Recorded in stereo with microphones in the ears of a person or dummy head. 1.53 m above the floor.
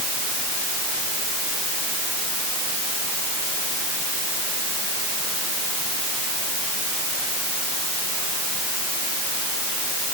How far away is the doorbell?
No doorbell in this recording.